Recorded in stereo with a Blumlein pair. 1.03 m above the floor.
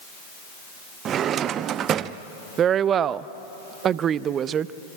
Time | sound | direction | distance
1.1 | a drawer | 30° right | 0.6 m
2.6 | a woman speaking | 25° right | 0.6 m